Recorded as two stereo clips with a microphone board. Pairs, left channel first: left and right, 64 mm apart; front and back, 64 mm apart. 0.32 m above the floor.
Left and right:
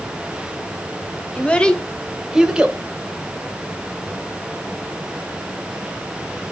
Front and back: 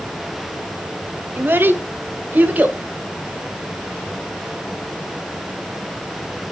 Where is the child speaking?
150° left, 1.1 m; by 2.8 s 140° right, 1.0 m.